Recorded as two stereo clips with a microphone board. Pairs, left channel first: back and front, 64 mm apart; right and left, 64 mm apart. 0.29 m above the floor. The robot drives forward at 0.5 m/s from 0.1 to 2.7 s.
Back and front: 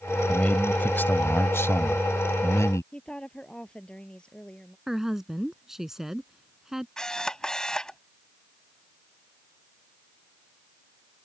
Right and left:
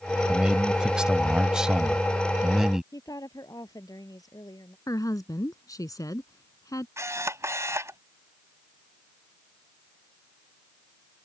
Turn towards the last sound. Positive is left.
turn(degrees=105)